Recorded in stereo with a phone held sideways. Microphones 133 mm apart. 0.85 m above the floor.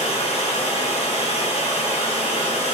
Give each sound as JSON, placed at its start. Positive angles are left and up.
{"t": 0.0, "sound": "running water", "side_deg": 50, "distance_m": 3.0}